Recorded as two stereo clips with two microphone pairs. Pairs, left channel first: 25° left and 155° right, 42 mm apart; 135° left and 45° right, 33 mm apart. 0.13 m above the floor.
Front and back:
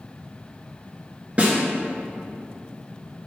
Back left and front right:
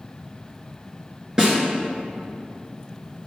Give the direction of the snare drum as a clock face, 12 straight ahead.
4 o'clock.